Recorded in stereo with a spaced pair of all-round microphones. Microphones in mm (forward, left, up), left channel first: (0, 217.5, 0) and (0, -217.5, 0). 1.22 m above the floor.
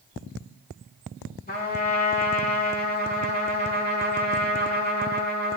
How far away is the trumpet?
About 5 m.